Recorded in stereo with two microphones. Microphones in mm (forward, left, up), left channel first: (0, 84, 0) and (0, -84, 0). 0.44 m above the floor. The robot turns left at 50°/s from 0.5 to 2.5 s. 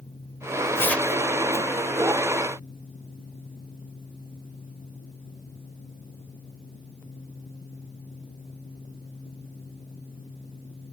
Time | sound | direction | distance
0.8 | tearing paper | 15° left (ahead or behind) | ?